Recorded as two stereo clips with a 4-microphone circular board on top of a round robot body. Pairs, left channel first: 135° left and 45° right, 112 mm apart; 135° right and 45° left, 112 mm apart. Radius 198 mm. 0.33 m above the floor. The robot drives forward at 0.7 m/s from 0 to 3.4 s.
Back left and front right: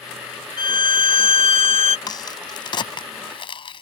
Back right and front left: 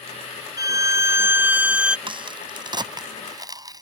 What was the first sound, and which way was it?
A violin, 95° left.